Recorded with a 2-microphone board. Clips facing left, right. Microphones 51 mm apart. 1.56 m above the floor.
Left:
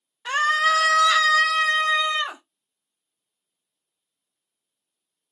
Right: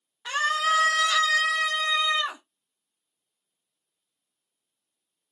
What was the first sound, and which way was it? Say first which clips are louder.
A scream: left 4 dB; 45° left (ahead or behind).